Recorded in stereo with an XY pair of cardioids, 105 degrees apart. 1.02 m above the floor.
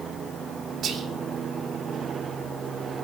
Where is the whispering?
65° right, 3.5 m.